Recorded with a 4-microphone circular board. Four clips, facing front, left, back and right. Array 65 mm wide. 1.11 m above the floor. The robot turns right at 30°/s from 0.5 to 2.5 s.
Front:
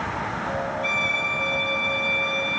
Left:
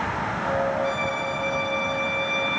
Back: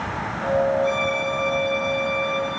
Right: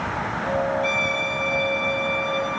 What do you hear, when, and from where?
0.8 s a violin: 30° right, 7.5 m; by 2.6 s 20° left, 7.5 m